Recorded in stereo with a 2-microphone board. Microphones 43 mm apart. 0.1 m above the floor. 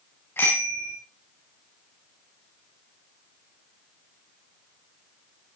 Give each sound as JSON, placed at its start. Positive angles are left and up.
{"t": 0.4, "sound": "a bicycle bell", "side_deg": 65, "distance_m": 7.0}